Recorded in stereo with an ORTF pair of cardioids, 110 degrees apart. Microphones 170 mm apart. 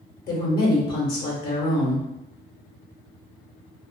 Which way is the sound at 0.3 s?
70° left.